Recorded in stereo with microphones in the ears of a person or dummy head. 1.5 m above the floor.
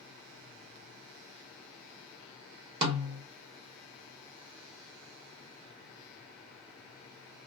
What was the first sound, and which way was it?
A snare drum, 35° right (ahead or behind).